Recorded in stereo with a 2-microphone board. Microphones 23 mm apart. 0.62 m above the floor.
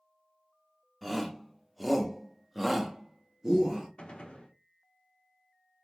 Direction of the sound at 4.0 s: 50° left (ahead or behind).